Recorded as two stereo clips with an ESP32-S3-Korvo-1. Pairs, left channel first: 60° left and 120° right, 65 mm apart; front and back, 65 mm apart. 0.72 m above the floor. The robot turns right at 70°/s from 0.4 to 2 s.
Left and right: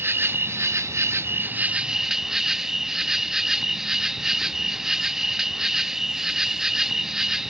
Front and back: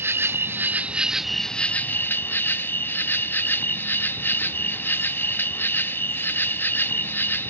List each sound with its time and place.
0.0 s an insect: 155° right, 0.7 m; by 7.5 s 40° right, 0.7 m